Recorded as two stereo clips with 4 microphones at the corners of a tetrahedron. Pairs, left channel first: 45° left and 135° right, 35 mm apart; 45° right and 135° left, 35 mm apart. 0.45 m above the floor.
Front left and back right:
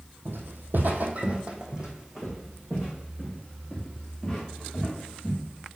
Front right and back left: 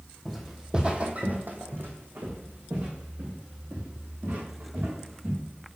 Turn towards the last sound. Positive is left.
turn(degrees=120)